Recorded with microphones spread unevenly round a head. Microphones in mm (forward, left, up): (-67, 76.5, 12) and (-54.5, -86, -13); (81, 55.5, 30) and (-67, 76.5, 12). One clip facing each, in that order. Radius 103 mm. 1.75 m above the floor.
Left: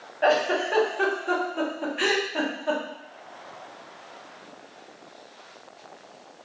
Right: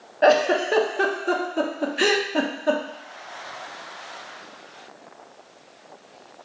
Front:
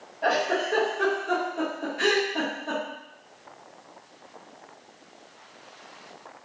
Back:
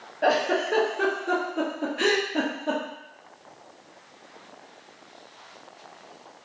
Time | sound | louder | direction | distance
0.2 | a giggle | right 5 dB, back 2 dB | 135° right | 0.6 m